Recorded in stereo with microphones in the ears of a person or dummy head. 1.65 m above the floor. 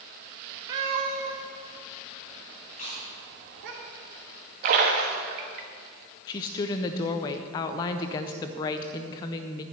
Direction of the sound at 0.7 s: 20° right (ahead or behind).